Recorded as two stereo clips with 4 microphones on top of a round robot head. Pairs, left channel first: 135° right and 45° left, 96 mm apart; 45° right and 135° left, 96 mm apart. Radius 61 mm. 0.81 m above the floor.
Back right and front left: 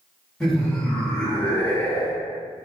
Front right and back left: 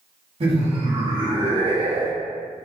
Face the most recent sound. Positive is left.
turn(degrees=160)